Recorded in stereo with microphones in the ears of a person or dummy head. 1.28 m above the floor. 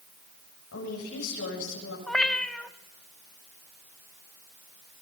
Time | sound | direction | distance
0.7 | a woman speaking | 85° left | 8 m
2.1 | a cat meowing | 5° left (ahead or behind) | 0.8 m